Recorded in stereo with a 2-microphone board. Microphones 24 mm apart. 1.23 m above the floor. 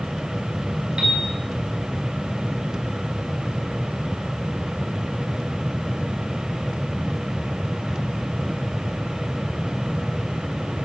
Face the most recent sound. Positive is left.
turn(degrees=-40)  # may be behind; listen again after turning